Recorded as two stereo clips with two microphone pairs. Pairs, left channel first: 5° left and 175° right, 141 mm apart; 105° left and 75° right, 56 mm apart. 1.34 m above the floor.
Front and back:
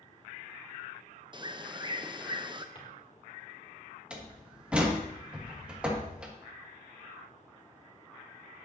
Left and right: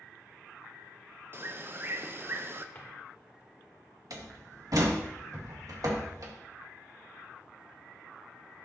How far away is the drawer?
About 2.5 m.